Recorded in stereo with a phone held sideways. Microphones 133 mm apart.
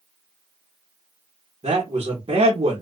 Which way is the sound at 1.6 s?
50° right (ahead or behind).